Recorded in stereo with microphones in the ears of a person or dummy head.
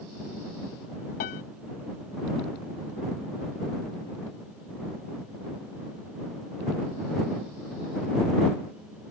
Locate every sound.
1.2 s a piano: 35° left (ahead or behind)